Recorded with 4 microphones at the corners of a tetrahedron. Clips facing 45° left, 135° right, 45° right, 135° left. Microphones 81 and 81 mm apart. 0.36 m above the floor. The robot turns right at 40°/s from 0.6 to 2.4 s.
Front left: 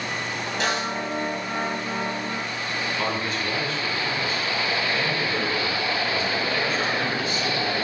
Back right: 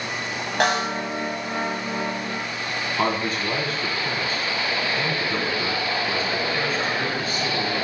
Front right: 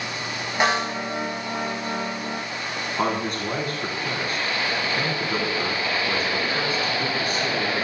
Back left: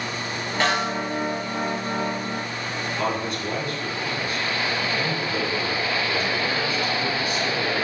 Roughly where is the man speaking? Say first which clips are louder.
Back right 6 dB, front right 2 dB; right.